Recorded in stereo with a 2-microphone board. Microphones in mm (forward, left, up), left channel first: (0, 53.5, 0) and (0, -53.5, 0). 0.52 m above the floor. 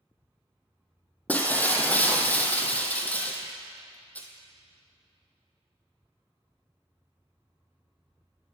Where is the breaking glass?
15° left (ahead or behind), 0.7 m.